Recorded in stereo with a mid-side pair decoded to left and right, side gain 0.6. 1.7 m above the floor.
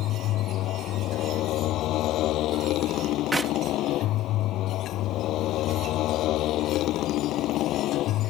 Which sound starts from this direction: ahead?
A clap, at 3.3 s.